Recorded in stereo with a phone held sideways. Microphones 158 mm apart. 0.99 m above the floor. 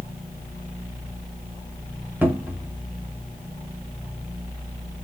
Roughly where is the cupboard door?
Centre.